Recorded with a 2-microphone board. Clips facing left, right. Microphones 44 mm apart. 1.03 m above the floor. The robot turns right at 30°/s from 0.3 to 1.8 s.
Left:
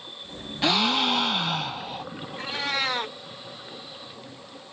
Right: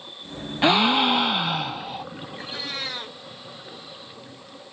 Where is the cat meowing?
55° left (ahead or behind), 1.4 m.